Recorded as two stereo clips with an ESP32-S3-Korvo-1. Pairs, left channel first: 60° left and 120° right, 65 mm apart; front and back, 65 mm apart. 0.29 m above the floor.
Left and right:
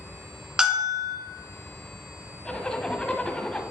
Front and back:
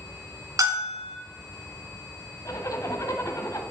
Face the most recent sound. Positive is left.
turn(degrees=-15)